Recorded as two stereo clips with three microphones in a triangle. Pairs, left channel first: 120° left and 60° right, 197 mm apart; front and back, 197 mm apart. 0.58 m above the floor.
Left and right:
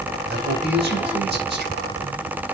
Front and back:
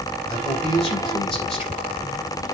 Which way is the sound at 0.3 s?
55° right.